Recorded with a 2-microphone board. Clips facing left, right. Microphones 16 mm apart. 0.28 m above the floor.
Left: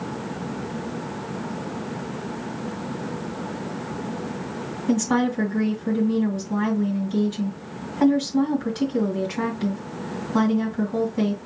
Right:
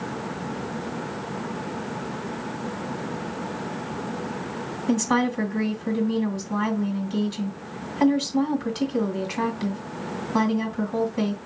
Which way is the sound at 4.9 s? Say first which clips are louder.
Left 1 dB; 25° right (ahead or behind).